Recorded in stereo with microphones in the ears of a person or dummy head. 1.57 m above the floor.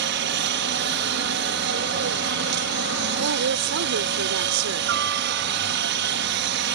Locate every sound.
0.0 s a helicopter: 60° right (ahead or behind)
3.2 s a woman speaking: 90° right